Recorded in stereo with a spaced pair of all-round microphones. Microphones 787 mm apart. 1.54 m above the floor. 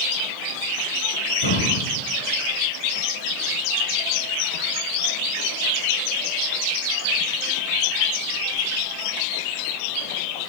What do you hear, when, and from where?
1.4 s breathing: 35° left (ahead or behind), 3.5 m